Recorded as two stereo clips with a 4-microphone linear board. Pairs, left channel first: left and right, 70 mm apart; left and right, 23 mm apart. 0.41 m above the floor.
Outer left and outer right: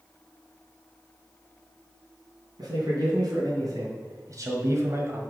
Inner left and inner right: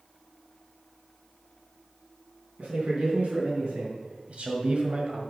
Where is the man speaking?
75° right (ahead or behind), 3 m; by 5.2 s 40° right (ahead or behind), 1.5 m.